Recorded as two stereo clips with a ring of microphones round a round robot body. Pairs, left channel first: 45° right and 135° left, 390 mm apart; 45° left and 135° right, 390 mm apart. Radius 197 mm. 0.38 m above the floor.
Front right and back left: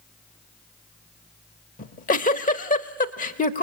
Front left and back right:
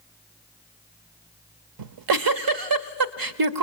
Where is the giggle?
110° right, 0.8 m.